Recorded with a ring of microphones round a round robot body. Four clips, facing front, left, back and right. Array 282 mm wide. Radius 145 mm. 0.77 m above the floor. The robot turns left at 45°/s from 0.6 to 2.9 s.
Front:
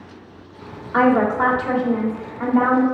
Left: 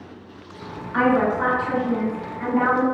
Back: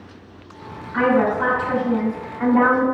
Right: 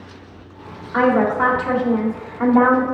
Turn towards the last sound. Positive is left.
turn(degrees=-115)